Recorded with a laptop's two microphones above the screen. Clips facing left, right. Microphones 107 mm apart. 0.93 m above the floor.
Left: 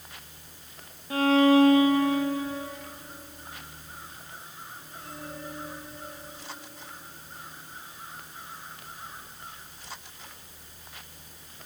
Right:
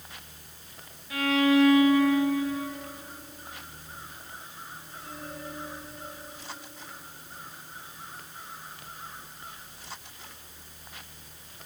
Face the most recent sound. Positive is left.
turn(degrees=35)  # may be behind; listen again after turning